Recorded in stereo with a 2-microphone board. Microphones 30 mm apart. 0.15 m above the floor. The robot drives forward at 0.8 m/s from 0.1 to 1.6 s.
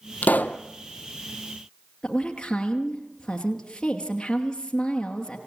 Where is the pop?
70° left (ahead or behind), 0.9 m; by 0.6 s 80° left, 0.9 m.